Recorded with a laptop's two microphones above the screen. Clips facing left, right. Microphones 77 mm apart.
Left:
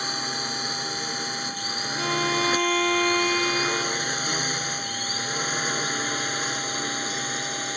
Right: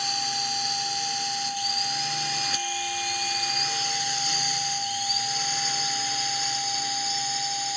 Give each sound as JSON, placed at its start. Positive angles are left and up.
{"t": 0.0, "sound": "a drone", "side_deg": 40}
{"t": 2.0, "sound": "a violin", "side_deg": 80}